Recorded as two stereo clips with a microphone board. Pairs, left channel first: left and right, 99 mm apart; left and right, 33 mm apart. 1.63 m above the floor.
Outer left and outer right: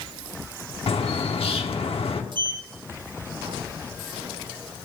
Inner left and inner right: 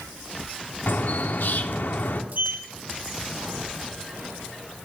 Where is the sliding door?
50° right (ahead or behind), 0.9 m.